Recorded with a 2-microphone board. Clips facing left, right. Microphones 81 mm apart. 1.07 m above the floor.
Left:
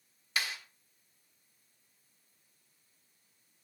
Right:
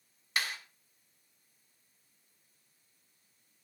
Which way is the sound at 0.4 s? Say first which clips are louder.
Right 1 dB; 55° right (ahead or behind).